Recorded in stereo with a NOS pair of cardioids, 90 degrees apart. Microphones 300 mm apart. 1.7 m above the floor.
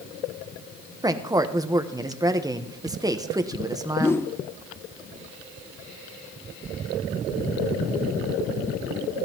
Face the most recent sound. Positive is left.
turn(degrees=10)